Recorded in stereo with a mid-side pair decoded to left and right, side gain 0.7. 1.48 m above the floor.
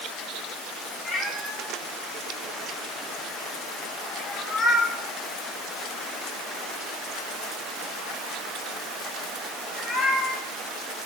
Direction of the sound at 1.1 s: 30° left.